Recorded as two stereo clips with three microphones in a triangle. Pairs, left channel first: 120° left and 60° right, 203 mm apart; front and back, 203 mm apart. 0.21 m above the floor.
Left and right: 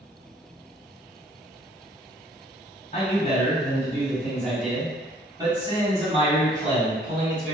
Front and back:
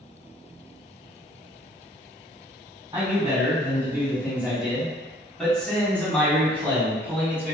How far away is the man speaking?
About 2.0 m.